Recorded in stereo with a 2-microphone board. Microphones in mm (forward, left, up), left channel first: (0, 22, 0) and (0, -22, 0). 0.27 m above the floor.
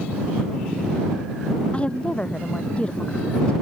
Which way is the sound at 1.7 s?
25° left (ahead or behind).